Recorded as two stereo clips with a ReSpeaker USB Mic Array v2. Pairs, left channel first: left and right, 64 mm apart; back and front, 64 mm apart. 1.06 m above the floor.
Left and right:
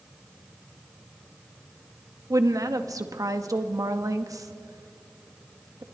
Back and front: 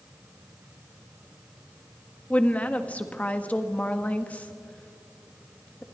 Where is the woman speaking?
110° right, 1.7 m.